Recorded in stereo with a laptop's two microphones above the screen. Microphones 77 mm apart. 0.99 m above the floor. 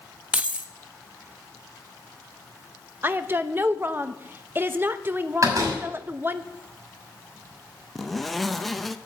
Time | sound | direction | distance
0.3 | keys jangling | 15° right (ahead or behind) | 0.5 m
3.0 | a woman speaking | 30° right (ahead or behind) | 0.6 m
5.4 | a door slam | 45° right (ahead or behind) | 6 m
8.0 | a zipper | centre (ahead or behind) | 0.7 m